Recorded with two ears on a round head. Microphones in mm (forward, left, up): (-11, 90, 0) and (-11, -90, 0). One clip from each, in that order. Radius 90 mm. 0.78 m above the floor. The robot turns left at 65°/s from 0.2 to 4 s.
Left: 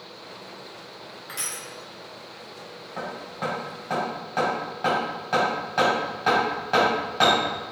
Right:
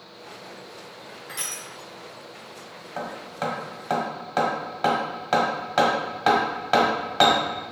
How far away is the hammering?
About 1.2 m.